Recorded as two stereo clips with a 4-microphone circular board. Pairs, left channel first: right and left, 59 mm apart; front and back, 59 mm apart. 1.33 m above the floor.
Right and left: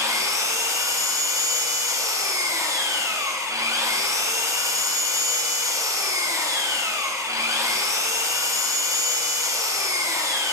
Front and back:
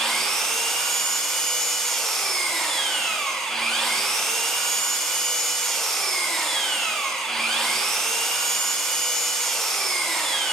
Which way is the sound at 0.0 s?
85° left.